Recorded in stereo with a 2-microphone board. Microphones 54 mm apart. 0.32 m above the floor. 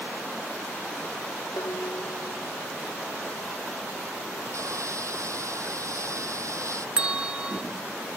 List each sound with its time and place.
1.6 s dishes clattering: 80° left
4.5 s sawing: 65° right (ahead or behind)
7.0 s a bell: 20° right (ahead or behind)